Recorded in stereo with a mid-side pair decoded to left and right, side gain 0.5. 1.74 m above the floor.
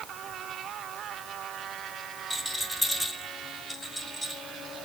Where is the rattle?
Straight ahead, 5 m.